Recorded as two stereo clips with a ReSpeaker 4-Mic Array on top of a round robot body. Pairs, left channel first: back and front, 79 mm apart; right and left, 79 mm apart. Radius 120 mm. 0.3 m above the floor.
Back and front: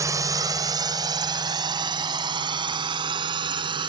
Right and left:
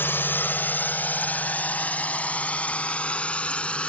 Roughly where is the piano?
No piano in this recording.